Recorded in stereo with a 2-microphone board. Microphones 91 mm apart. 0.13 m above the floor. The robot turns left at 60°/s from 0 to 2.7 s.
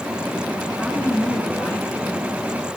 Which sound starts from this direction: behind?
A woman speaking, at 0.8 s.